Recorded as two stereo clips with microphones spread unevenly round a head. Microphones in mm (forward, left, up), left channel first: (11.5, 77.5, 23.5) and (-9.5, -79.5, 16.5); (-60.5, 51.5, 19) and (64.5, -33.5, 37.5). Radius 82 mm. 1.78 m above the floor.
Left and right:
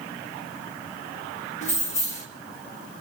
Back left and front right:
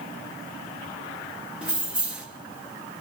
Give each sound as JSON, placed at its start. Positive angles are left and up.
{"t": 1.6, "sound": "keys jangling", "azimuth_deg": 40, "distance_m": 1.6}